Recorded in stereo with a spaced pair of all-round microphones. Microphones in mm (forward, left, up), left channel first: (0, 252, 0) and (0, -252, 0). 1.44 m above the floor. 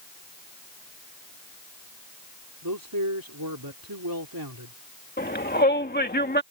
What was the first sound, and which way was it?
A man speaking, 45° right (ahead or behind).